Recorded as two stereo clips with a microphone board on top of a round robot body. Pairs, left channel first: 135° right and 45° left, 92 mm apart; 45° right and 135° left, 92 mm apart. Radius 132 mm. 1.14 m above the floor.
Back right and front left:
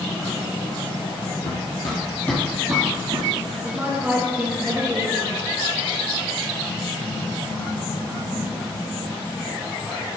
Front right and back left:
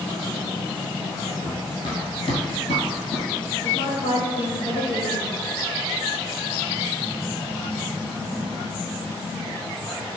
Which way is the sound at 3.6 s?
25° right.